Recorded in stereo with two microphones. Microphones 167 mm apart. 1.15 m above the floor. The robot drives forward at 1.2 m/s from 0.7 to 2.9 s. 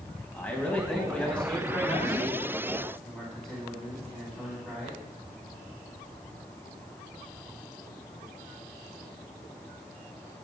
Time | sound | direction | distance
0.3 | a man speaking | 15° left (ahead or behind) | 1.2 m